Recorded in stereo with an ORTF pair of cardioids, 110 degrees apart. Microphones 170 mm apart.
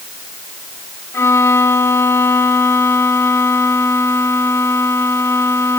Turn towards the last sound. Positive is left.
turn(degrees=15)